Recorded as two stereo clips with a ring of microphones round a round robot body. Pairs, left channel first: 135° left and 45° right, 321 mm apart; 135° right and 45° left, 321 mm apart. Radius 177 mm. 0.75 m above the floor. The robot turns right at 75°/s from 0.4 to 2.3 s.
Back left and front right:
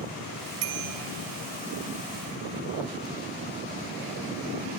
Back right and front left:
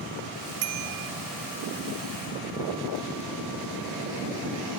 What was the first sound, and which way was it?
A bicycle bell, straight ahead.